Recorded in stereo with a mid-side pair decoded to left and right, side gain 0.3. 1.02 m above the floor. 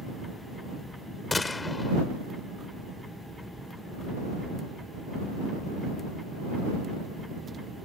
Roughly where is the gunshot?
Ahead left.